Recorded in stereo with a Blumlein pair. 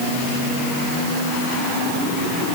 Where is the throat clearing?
I don't hear throat clearing.